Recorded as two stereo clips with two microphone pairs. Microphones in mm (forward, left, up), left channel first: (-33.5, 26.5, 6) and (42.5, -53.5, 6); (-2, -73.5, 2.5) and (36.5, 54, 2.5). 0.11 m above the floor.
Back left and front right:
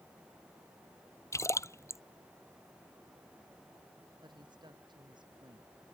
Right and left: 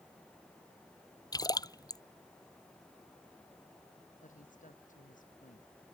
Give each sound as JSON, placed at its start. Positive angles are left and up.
{"t": 1.3, "sound": "a splash", "azimuth_deg": -165}
{"t": 4.2, "sound": "a woman speaking", "azimuth_deg": -95}